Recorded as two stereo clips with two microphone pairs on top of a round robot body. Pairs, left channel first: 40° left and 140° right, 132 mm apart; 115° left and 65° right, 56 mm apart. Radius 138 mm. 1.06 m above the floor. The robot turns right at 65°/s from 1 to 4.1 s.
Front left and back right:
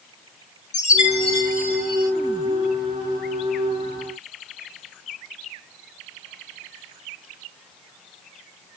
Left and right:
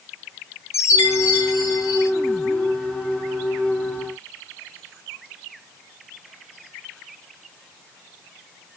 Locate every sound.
0.7 s a chime: 75° left, 2.5 m; by 2.1 s 150° left, 2.5 m